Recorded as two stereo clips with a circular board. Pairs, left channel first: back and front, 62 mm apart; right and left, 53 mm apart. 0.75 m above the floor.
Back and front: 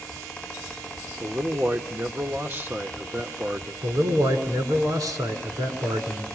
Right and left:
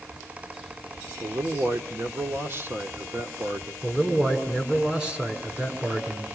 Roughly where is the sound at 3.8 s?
Ahead.